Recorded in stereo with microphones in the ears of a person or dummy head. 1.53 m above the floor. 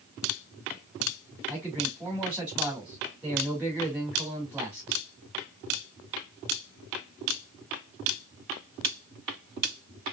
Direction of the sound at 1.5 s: 10° right (ahead or behind).